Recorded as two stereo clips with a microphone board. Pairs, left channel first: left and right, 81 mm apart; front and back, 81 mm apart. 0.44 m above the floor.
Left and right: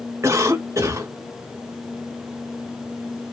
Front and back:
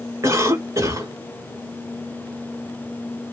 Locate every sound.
0.2 s a cough: 135° right, 1.8 m